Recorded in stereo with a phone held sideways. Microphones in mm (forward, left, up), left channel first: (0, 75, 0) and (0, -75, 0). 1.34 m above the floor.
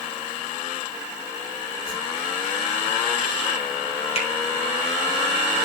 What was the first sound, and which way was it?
A whoosh, 85° left.